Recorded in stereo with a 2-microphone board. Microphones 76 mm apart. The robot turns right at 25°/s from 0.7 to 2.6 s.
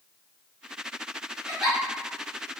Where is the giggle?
Centre (ahead or behind), 1.7 m; by 1.8 s 10° right (ahead or behind), 1.7 m.